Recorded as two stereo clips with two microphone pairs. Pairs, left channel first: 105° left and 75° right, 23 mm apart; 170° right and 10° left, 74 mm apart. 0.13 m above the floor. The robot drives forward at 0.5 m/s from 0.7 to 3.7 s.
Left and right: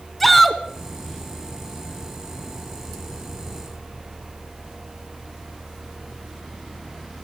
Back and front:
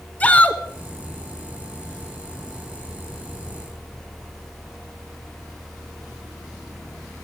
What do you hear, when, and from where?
0.2 s a shout: 175° left, 1.1 m